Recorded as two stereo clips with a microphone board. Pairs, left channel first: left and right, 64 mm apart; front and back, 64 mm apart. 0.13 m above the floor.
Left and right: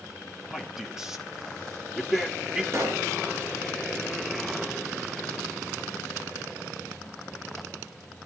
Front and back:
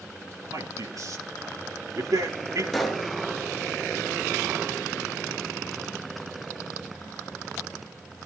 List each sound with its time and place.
0.5 s a man speaking: 170° right, 3 m
2.7 s a pop: 85° right, 2 m